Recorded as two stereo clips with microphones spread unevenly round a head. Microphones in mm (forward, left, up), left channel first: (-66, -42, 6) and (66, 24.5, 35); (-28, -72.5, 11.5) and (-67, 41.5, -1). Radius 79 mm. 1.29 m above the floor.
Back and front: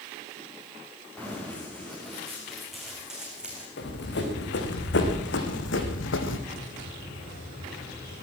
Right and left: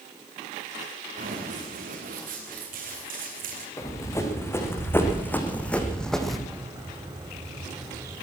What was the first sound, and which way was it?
Running footsteps, 125° left.